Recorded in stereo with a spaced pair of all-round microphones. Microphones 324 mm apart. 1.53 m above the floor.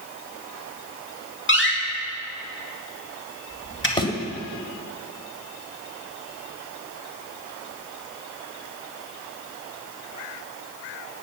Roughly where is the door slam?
Left.